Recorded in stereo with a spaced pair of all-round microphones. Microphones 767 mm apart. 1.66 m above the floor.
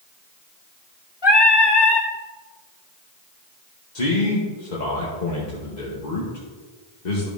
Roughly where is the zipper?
No zipper in this recording.